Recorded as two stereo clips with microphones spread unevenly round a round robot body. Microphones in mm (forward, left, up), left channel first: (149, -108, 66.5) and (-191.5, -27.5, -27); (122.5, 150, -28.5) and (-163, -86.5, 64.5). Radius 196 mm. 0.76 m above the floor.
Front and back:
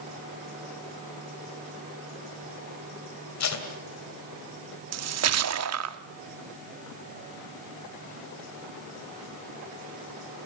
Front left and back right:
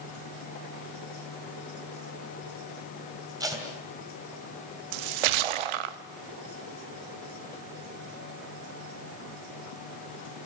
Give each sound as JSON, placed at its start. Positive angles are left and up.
{"t": 3.4, "sound": "tape being pulled", "azimuth_deg": -60, "distance_m": 3.0}
{"t": 4.9, "sound": "a splash", "azimuth_deg": -155, "distance_m": 1.0}